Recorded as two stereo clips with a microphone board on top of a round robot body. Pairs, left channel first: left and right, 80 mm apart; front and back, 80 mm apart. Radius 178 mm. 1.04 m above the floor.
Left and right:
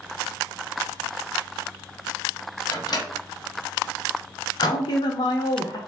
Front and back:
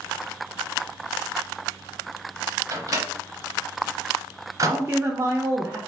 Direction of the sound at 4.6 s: 115° left.